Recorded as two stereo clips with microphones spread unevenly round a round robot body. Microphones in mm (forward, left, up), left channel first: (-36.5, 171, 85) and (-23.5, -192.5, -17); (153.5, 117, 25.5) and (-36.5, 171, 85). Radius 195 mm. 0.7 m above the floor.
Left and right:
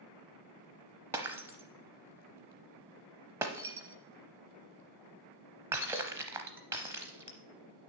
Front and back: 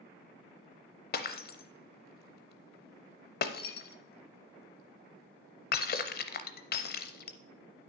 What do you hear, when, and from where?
1.1 s breaking glass: 15° left, 0.5 m